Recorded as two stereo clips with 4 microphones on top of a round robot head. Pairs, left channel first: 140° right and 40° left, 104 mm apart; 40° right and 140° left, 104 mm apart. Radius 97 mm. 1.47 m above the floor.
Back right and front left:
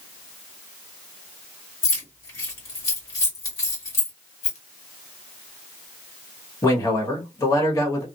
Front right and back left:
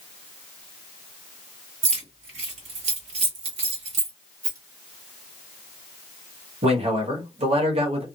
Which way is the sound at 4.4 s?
165° right.